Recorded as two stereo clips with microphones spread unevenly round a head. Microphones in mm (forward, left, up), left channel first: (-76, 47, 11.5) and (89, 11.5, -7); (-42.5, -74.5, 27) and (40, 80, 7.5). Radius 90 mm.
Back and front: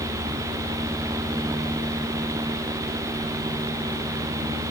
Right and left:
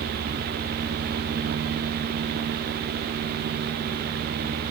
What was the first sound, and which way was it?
Only background noise.